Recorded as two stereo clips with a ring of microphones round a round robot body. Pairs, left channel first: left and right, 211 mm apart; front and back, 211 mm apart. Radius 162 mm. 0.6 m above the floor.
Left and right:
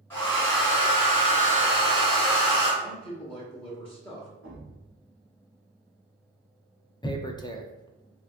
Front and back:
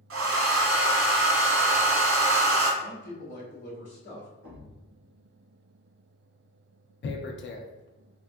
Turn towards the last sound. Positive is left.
turn(degrees=20)